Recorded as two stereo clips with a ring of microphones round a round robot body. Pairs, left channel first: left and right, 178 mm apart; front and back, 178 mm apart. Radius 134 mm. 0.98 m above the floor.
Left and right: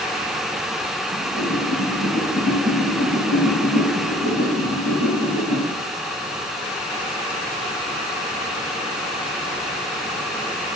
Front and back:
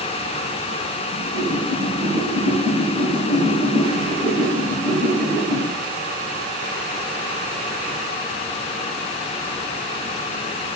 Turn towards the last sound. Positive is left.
turn(degrees=-125)